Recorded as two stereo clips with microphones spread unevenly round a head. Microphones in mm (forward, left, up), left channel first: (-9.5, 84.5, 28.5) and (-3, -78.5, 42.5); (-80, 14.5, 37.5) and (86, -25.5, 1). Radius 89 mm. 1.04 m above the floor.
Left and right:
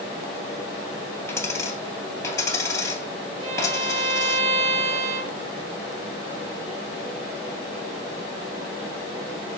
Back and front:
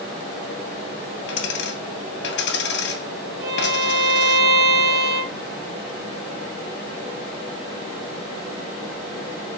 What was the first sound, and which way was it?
A dropped coin, 165° left.